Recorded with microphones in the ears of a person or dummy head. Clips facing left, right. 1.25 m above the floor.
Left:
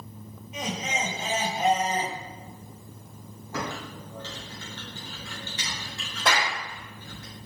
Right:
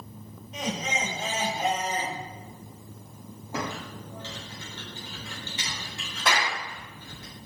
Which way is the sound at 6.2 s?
25° left (ahead or behind).